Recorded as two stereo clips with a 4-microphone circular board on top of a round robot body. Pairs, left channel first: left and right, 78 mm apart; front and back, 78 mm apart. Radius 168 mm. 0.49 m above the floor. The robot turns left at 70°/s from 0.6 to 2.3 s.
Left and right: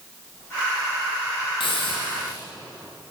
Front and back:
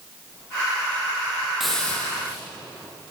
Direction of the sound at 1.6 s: 95° left.